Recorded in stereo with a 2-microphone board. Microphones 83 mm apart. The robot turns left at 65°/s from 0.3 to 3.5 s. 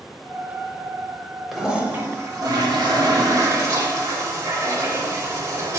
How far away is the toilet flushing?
About 0.7 m.